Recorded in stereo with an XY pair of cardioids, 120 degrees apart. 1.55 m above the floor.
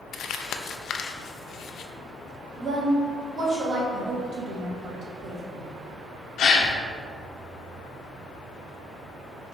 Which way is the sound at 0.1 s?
55° left.